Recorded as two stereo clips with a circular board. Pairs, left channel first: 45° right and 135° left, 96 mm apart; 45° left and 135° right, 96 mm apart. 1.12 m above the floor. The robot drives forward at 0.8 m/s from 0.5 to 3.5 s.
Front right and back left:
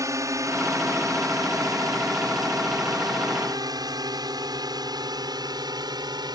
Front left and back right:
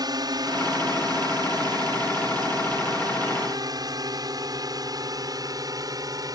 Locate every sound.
0.0 s a drone: 175° right; by 6.4 s 175° left